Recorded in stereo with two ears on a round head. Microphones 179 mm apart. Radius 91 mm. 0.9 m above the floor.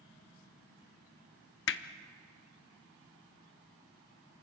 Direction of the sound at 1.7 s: 55° left (ahead or behind).